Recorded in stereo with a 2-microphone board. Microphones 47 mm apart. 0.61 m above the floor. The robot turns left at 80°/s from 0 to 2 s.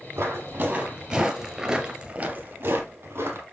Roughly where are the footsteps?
Right.